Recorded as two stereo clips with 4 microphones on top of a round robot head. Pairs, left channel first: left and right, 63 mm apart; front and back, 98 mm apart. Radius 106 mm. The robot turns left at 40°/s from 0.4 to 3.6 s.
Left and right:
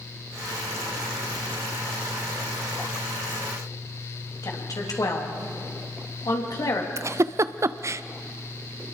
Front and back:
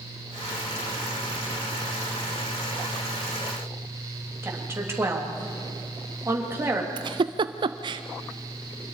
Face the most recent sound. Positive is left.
turn(degrees=-135)